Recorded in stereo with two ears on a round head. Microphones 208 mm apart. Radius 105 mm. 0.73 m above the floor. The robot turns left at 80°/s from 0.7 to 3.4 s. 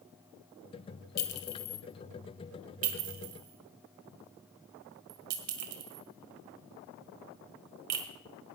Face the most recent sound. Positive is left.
turn(degrees=-80)